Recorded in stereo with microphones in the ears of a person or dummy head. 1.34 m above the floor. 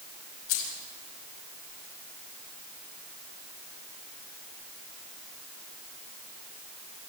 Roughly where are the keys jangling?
Left.